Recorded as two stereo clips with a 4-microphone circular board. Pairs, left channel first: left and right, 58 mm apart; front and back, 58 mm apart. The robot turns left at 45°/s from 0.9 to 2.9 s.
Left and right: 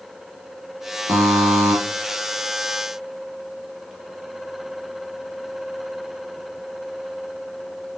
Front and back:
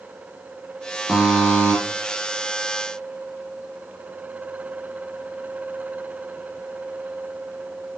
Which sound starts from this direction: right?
A buzzer, at 1.1 s.